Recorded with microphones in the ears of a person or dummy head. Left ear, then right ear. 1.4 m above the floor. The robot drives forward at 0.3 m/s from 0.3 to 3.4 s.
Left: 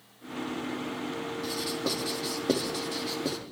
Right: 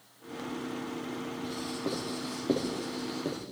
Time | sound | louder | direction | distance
1.4 | writing | left 5 dB | 70° left (ahead or behind) | 3.5 m